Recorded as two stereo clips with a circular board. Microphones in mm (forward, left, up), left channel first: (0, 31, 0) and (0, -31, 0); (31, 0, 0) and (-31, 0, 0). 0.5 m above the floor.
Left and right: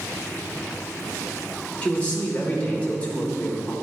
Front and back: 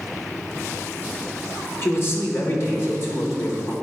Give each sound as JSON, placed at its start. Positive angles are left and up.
{"t": 1.8, "sound": "a man speaking", "azimuth_deg": 25, "distance_m": 1.2}